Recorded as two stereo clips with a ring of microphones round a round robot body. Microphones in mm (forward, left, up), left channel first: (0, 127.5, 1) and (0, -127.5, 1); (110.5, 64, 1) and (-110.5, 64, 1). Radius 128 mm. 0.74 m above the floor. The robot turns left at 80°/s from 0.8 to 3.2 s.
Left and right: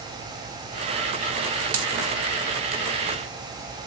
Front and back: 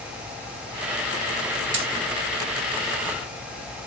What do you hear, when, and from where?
1.7 s a dropped coin: 130° right, 0.8 m; by 1.9 s 145° right, 0.8 m